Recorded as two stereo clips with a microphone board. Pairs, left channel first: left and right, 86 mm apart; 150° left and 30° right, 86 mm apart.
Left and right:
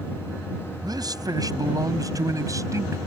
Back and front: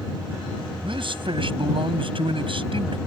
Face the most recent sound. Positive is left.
turn(degrees=-35)